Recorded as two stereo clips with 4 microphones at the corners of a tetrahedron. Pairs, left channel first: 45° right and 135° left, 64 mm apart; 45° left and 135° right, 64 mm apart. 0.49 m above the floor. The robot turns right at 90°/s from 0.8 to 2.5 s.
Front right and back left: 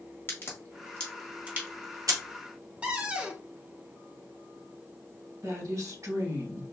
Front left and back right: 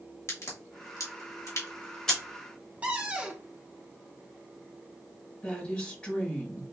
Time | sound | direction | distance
0.3 | a crack | 10° left | 1.6 m
2.8 | a cupboard door | straight behind | 0.8 m
5.4 | a woman speaking | 125° left | 1.8 m